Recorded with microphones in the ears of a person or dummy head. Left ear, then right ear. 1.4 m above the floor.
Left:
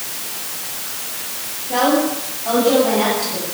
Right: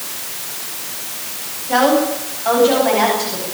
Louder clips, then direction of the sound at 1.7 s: Right 3 dB; 50° right (ahead or behind).